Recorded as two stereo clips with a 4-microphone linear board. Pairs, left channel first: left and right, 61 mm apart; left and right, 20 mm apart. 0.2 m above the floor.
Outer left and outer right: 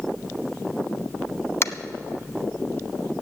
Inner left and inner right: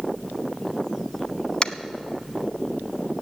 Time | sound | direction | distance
1.6 | tapping | 45° left (ahead or behind) | 0.5 m